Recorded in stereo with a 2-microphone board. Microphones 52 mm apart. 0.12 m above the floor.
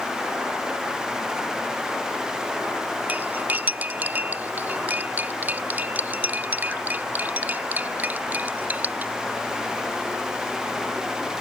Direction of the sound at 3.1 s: 30° right (ahead or behind).